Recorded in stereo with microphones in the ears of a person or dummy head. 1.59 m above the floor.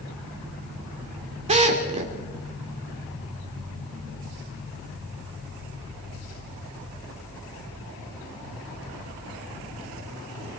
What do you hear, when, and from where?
1.5 s a drill: 30° right (ahead or behind), 2.5 m